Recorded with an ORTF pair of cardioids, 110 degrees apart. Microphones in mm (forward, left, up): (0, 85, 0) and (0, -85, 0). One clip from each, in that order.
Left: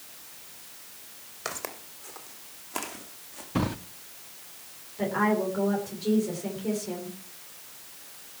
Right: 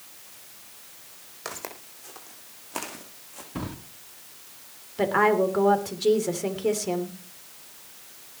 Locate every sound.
1.4 s footsteps: 5° left, 3.5 m; by 3.5 s 15° right, 4.5 m
3.5 s a drawer: 30° left, 1.1 m
5.0 s a woman speaking: 60° right, 3 m